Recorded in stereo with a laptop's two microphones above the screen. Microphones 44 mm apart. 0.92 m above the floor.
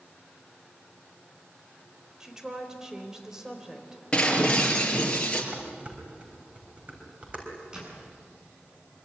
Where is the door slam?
15° right (ahead or behind), 8 m.